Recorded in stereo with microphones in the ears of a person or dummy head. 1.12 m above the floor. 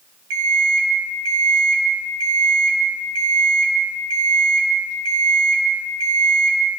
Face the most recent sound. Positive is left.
turn(degrees=-75)  # may be behind; listen again after turning